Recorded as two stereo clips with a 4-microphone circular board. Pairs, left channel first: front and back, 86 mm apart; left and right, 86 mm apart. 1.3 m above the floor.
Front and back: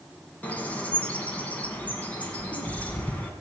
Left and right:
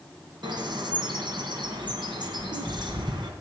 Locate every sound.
0.4 s a bird: 70° right, 2.5 m